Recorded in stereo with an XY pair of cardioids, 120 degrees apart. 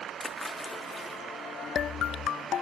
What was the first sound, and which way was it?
A splash, 15° left.